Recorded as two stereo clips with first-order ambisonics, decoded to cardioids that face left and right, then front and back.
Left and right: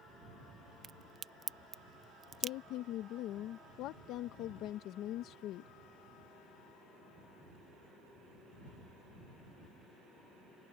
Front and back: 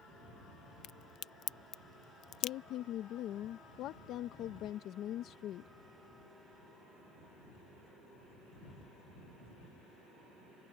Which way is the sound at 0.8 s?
30° right.